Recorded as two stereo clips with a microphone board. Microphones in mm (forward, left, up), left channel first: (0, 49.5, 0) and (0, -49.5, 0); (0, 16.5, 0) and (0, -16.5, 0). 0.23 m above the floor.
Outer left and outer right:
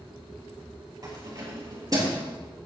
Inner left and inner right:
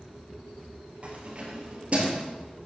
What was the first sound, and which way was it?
Keys jangling, 40° right (ahead or behind).